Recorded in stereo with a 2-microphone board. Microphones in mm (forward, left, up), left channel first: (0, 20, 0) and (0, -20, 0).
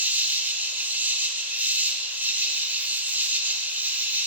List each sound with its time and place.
0.0 s an insect: 50° right (ahead or behind), 1.0 m